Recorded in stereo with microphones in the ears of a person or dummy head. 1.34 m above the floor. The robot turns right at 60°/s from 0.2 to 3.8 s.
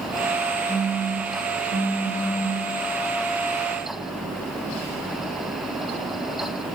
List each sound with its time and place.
0.7 s a phone buzzing: 155° left, 8.5 m; by 2.6 s 85° right, 8.5 m